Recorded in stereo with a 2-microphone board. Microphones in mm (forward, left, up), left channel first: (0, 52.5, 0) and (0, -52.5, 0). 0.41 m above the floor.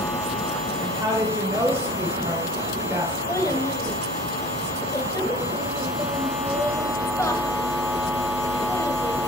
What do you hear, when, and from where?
0.8 s a woman speaking: 30° right (ahead or behind), 1.4 m; by 3.2 s 15° right (ahead or behind), 3 m
3.3 s a child speaking: 30° left (ahead or behind), 1.3 m